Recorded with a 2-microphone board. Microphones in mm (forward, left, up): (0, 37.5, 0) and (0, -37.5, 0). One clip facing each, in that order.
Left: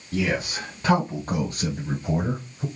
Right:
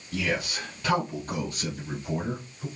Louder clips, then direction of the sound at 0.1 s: Left 4 dB; 35° left (ahead or behind).